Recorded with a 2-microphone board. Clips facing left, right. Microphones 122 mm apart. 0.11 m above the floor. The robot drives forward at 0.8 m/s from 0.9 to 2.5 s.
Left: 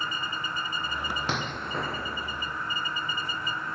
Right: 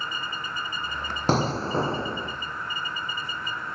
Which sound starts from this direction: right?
An explosion, at 1.3 s.